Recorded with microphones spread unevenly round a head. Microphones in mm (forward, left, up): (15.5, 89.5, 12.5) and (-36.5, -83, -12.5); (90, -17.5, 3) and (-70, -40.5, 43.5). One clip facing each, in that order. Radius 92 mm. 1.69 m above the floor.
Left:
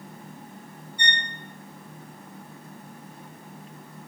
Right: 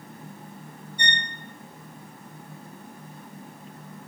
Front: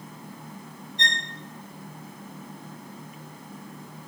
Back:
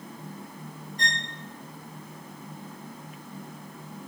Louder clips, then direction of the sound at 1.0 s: Even, front 1 dB; 60° right.